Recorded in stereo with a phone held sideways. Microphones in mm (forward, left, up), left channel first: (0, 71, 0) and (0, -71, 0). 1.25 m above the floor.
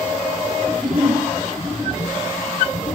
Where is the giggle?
Centre (ahead or behind), 8 m.